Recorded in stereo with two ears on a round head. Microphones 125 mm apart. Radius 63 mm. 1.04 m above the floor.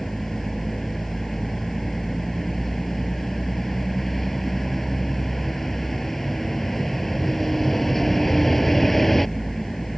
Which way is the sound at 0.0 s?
Centre (ahead or behind).